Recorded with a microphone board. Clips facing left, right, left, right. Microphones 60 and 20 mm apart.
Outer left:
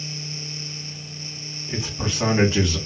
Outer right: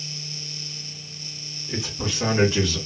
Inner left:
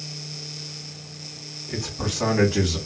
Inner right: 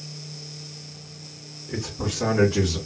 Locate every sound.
1.7 s a man speaking: 40° left (ahead or behind), 2.5 m; by 2.8 s 25° left (ahead or behind), 2.5 m